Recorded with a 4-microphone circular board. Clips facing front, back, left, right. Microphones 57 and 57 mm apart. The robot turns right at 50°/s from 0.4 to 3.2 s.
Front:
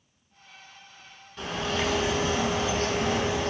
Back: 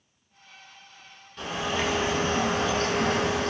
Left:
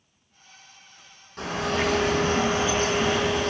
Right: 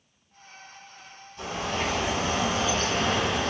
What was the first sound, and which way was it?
A bird, 85° left.